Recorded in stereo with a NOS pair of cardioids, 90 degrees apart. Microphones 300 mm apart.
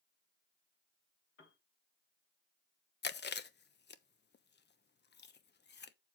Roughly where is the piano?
Ahead left.